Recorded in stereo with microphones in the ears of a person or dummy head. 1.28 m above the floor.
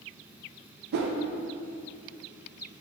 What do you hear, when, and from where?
0.9 s a whoosh: 60° right (ahead or behind), 0.7 m